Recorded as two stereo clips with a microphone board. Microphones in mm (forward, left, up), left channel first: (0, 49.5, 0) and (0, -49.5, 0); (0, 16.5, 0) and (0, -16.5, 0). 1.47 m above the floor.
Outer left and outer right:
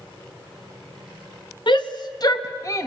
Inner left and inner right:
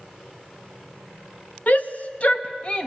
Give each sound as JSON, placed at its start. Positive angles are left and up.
{"t": 1.7, "sound": "a shout", "side_deg": 50, "distance_m": 2.0}